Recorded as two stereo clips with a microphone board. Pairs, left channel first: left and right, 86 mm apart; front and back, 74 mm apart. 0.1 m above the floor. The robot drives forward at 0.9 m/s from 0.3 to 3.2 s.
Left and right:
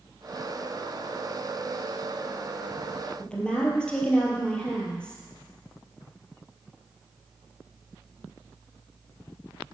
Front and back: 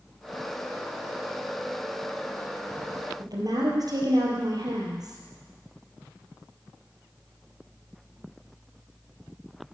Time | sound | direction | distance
3.2 | a woman speaking | 165° left | 3 m